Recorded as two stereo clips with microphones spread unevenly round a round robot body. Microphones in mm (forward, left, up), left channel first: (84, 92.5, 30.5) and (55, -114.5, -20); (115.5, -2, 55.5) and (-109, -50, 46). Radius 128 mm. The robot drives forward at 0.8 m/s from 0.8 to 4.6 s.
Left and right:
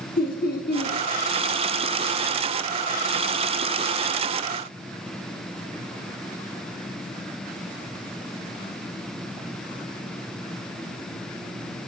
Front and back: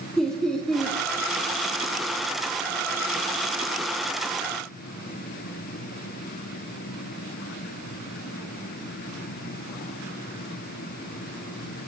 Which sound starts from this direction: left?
Laughter, at 0.2 s.